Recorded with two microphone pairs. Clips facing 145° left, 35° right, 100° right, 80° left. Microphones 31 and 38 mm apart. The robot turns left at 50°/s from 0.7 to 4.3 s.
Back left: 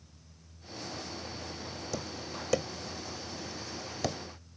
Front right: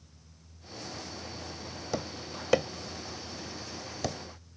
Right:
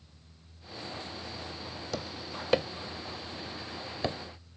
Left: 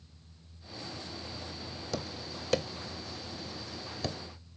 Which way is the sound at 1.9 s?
25° right.